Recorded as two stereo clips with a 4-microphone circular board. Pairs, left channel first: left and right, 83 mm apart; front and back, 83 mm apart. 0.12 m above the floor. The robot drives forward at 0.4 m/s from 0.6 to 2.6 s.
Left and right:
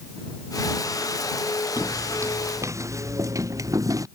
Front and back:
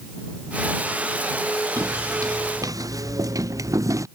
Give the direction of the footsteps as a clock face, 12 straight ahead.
5 o'clock.